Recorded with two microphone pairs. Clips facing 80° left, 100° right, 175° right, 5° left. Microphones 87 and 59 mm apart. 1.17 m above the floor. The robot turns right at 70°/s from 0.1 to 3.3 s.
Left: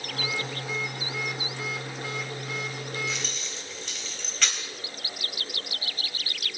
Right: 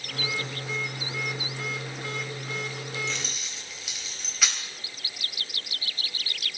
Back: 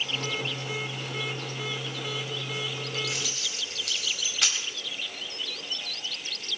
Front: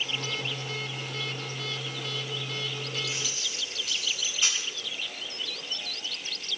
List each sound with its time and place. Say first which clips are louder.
3.1 s keys jangling: left 1 dB, back 1 dB; 160° left, 4 m; by 4.6 s 175° left, 4 m